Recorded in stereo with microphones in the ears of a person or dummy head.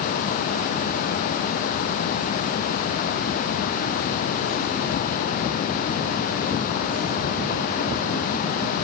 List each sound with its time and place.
Only background noise.